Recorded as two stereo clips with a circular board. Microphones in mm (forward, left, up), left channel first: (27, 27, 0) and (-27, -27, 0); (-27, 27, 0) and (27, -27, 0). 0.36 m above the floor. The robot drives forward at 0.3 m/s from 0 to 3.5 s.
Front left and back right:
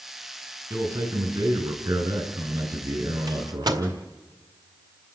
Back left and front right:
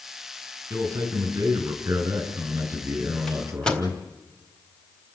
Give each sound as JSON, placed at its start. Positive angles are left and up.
{"t": 0.7, "sound": "a man speaking", "azimuth_deg": -95, "distance_m": 5.5}
{"t": 3.3, "sound": "a microwave", "azimuth_deg": -145, "distance_m": 1.7}